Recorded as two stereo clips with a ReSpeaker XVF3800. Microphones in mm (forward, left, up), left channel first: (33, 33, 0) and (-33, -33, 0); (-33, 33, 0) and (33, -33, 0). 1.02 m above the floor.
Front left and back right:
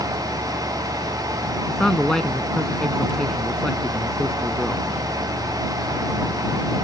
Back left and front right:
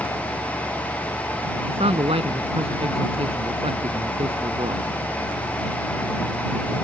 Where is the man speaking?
40° right.